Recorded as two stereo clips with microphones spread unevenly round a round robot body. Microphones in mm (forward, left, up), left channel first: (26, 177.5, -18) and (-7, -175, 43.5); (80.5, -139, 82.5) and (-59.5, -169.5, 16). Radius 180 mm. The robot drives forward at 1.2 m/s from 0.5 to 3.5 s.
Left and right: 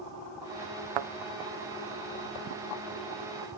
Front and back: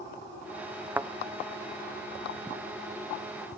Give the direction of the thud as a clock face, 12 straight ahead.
3 o'clock.